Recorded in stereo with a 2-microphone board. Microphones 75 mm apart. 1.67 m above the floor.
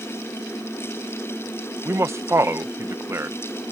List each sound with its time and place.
1.9 s a man speaking: 35° right (ahead or behind)